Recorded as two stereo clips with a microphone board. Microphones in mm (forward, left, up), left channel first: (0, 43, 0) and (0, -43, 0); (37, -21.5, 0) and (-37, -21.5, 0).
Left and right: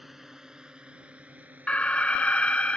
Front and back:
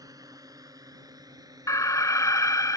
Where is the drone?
Straight behind; by 2.8 s 155° right.